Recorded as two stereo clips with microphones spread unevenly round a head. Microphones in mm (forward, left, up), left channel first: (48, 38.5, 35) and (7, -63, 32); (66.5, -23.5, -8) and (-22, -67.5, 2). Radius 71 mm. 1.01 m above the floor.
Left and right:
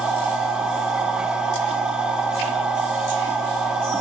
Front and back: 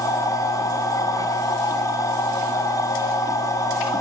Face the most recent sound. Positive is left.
turn(degrees=-30)